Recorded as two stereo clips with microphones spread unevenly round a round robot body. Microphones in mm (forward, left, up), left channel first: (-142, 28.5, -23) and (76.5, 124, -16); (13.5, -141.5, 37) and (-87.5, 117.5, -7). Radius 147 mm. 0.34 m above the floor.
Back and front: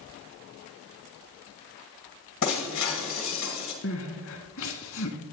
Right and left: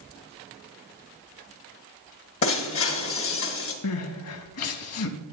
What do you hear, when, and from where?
2.4 s breaking glass: 115° right, 1.5 m
3.8 s crying: 105° right, 0.7 m